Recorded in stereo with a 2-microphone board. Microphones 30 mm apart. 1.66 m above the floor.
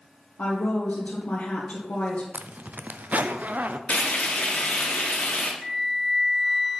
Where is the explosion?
I don't hear an explosion.